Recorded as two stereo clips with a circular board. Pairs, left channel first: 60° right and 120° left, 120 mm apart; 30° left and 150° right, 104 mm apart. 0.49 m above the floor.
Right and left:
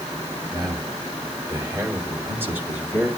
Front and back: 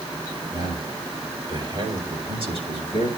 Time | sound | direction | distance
0.5 | a man speaking | 170° left | 3 m